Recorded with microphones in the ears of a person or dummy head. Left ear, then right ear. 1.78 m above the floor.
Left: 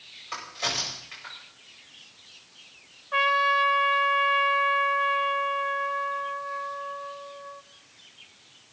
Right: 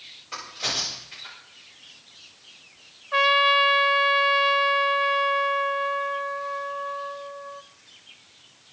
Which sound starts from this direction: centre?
A trumpet, at 3.1 s.